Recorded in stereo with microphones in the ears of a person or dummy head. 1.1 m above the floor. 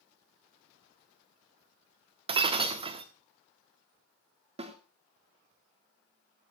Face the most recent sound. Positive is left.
turn(degrees=-35)  # may be behind; listen again after turning